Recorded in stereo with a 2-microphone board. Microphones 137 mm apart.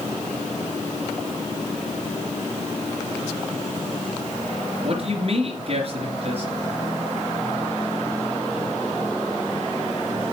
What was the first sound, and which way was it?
A man speaking, 50° right (ahead or behind).